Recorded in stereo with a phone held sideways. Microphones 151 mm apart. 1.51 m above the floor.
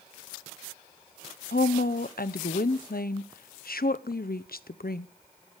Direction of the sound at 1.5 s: 80° left.